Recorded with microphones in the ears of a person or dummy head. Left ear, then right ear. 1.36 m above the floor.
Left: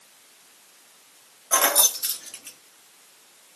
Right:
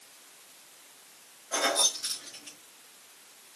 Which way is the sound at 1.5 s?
40° left (ahead or behind).